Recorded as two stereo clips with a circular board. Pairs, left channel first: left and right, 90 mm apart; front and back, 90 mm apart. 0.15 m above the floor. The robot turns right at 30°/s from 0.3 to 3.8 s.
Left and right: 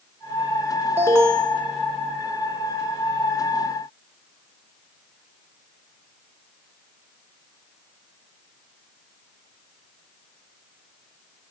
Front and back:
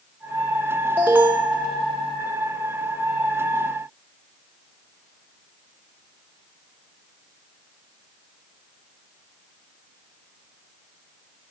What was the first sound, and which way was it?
An alarm, 125° right.